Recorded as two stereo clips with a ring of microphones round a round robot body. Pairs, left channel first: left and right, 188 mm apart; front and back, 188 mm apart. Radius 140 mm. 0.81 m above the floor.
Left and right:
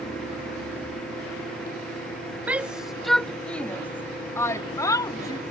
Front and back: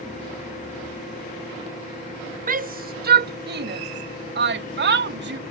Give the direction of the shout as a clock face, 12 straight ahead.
6 o'clock.